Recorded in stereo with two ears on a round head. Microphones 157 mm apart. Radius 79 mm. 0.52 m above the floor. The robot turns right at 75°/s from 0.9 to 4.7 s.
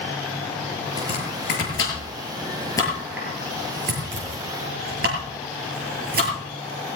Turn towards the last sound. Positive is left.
turn(degrees=-55)  # may be behind; listen again after turning